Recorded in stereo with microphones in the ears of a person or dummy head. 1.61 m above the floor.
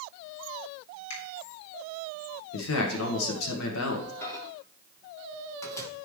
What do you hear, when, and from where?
1.1 s a finger snap: 65° left (ahead or behind), 4 m
2.5 s a man speaking: 85° left, 1.5 m
4.2 s a microwave: 15° left (ahead or behind), 1.2 m